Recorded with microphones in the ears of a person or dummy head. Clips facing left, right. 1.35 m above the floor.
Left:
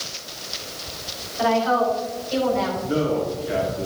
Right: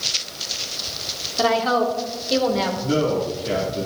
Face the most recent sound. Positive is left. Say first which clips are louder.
# right 4 dB
turn(degrees=-75)  # may be behind; listen again after turning